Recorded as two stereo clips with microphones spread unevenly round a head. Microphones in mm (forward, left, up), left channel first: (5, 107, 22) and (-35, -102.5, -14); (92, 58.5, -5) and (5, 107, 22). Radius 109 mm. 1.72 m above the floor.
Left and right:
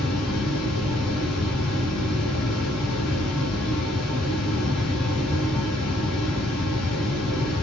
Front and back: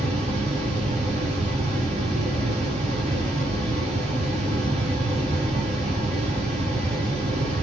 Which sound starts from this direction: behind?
A fan, at 0.0 s.